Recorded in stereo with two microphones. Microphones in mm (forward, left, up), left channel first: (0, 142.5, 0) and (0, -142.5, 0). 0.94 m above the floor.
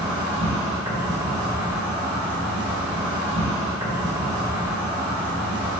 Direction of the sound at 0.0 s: 15° right (ahead or behind).